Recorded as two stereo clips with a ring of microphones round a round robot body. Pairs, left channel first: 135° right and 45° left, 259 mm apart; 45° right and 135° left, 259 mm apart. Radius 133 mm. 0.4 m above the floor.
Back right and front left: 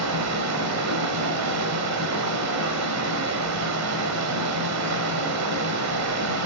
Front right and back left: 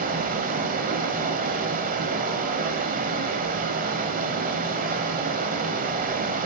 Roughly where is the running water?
Left.